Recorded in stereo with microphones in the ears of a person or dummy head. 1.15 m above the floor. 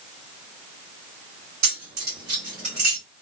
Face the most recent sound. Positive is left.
turn(degrees=-35)  # may be behind; listen again after turning